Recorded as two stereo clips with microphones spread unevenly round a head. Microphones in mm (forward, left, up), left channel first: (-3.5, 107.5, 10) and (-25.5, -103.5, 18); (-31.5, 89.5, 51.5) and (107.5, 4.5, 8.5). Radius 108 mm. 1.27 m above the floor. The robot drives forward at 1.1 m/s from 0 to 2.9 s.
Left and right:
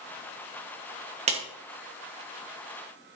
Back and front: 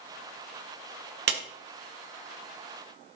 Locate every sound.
1.3 s a clap: 35° right, 1.8 m